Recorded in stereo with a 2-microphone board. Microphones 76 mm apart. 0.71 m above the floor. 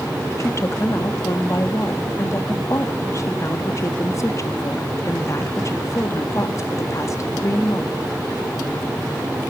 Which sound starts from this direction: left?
A woman speaking, at 0.4 s.